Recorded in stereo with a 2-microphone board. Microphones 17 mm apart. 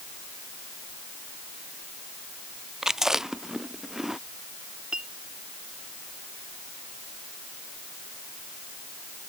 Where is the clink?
85° right.